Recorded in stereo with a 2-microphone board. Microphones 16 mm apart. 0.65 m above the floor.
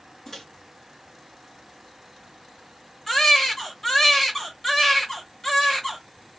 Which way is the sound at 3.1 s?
20° left (ahead or behind).